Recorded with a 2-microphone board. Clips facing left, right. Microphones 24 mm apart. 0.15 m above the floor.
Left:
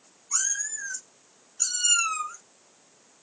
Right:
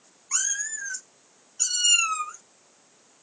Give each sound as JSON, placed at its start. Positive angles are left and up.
{"t": 0.3, "sound": "a cat meowing", "side_deg": -50, "distance_m": 1.2}